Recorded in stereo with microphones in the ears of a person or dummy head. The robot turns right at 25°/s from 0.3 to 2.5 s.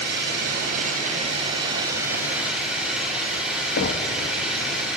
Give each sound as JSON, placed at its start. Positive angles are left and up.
{"t": 0.0, "sound": "an engine running", "azimuth_deg": -60, "distance_m": 6.5}
{"t": 3.8, "sound": "knocking", "side_deg": 55, "distance_m": 1.5}